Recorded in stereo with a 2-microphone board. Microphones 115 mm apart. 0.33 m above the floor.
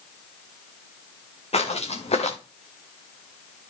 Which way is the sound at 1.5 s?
60° left (ahead or behind).